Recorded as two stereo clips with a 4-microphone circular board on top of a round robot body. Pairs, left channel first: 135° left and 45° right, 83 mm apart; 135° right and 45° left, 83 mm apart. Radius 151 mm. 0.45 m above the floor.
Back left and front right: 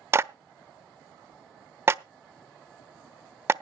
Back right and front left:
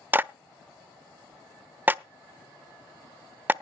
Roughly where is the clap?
Ahead.